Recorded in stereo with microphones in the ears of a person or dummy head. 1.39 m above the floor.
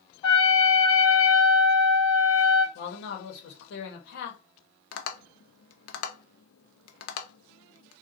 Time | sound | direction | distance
0.2 | a trumpet | 35° left (ahead or behind) | 1.6 m
2.8 | a man speaking | 70° left (ahead or behind) | 1.0 m
4.9 | tapping | 65° left (ahead or behind) | 0.6 m